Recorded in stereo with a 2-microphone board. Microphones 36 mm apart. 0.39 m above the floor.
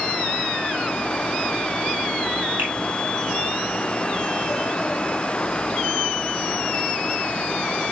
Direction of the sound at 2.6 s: 65° right (ahead or behind).